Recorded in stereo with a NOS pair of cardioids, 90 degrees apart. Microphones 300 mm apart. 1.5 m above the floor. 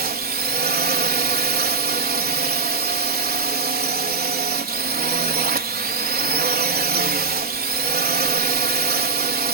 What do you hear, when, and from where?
0.0 s a drone: 30° right